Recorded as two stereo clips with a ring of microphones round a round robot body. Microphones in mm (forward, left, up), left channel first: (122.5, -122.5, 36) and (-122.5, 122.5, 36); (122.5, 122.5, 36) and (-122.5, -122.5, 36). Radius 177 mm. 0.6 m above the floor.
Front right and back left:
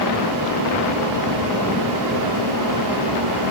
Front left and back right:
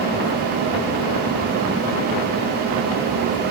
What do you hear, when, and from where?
Only background noise.